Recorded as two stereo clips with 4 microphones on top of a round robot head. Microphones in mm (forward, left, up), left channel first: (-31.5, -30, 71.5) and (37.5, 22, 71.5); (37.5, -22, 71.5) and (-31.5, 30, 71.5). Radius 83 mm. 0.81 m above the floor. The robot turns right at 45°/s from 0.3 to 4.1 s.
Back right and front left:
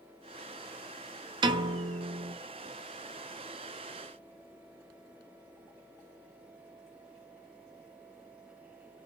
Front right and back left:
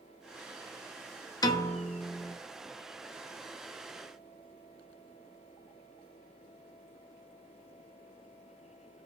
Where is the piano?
10° left, 0.6 m; by 2.4 s 50° left, 0.6 m.